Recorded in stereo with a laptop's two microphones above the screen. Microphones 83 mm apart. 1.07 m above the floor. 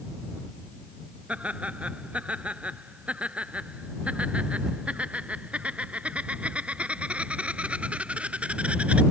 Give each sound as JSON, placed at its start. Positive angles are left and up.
{"t": 1.3, "sound": "laughter", "side_deg": -15}